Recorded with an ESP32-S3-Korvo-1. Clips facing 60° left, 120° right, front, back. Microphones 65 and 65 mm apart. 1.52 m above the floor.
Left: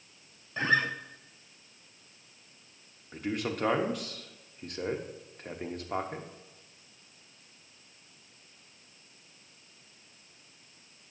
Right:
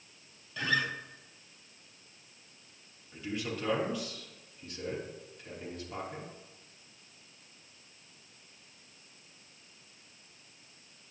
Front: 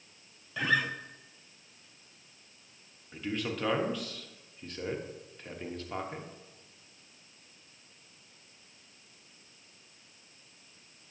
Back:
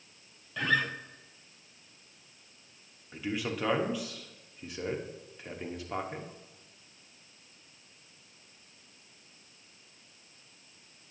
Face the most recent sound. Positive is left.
turn(degrees=100)